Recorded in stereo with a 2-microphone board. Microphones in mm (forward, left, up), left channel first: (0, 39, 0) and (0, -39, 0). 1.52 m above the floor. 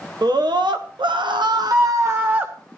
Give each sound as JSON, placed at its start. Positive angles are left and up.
{"t": 0.2, "sound": "a scream", "side_deg": -60, "distance_m": 1.3}